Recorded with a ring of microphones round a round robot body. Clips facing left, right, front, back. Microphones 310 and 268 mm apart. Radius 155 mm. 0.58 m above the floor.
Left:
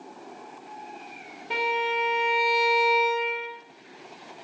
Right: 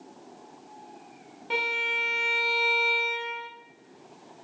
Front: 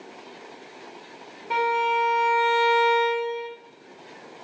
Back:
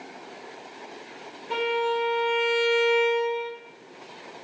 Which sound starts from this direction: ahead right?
A violin, at 1.5 s.